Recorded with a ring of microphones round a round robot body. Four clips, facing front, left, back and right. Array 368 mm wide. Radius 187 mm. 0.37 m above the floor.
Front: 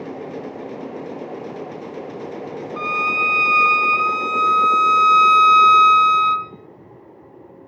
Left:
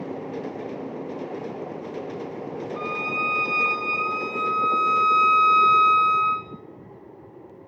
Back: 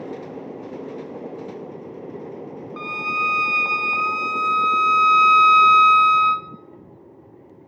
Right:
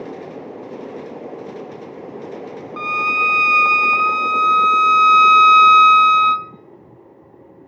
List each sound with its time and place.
2.8 s a violin: 85° right, 1.0 m